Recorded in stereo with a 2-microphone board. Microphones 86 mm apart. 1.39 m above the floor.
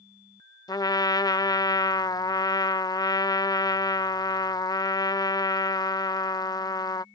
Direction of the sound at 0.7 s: 50° left (ahead or behind).